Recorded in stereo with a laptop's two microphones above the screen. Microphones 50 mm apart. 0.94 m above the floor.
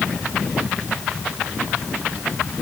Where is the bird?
No bird in this recording.